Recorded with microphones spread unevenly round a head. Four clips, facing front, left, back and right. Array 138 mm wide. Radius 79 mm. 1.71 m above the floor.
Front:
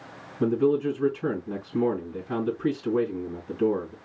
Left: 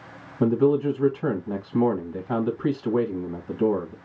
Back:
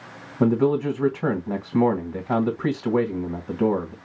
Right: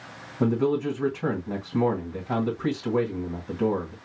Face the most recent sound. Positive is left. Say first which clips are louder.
# left 4 dB, back 3 dB
turn(degrees=180)